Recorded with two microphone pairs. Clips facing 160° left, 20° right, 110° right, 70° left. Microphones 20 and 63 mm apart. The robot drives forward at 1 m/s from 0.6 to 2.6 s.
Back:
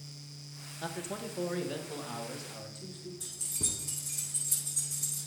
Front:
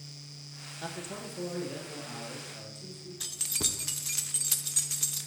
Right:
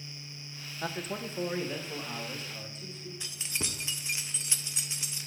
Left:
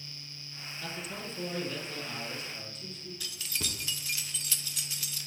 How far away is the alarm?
I don't hear an alarm.